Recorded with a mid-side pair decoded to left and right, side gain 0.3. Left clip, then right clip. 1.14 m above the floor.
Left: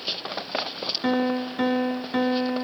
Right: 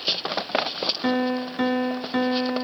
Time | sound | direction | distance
1.0 | a piano | 15° right | 1.9 m